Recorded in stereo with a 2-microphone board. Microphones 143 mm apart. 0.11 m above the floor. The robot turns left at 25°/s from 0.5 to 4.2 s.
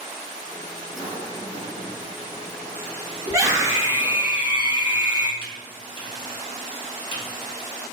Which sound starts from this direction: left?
Typing on a keyboard, at 5.4 s.